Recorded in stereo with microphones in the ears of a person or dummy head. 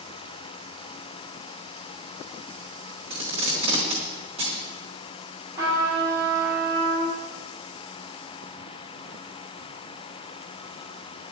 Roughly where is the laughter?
No laughter in this recording.